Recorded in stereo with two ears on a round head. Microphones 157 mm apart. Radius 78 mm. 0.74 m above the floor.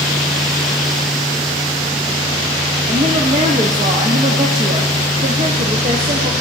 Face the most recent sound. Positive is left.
turn(degrees=-35)  # may be behind; listen again after turning